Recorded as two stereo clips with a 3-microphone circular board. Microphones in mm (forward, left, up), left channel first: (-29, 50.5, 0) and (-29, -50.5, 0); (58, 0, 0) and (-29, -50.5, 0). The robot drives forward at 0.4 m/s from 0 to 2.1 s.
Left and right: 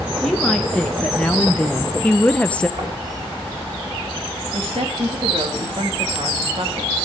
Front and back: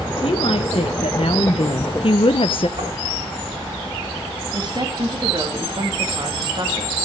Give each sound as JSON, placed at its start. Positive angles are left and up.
{"t": 0.2, "sound": "a woman speaking", "azimuth_deg": 5, "distance_m": 1.4}
{"t": 2.8, "sound": "knocking", "azimuth_deg": -120, "distance_m": 6.5}
{"t": 4.5, "sound": "a woman speaking", "azimuth_deg": -110, "distance_m": 2.5}